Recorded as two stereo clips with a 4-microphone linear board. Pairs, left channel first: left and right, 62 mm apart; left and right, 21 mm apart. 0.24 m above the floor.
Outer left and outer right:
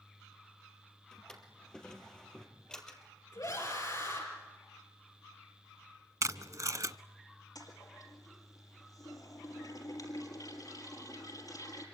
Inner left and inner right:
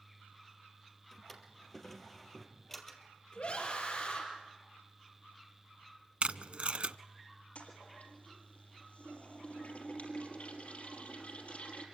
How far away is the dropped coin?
No dropped coin in this recording.